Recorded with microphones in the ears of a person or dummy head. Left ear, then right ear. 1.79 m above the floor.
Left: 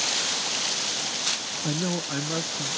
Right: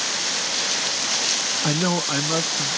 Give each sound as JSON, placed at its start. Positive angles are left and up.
{"t": 1.6, "sound": "a man speaking", "side_deg": -55}